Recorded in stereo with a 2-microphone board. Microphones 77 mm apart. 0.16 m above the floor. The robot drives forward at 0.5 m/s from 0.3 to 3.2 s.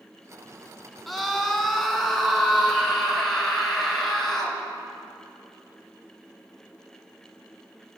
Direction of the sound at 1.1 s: Centre (ahead or behind).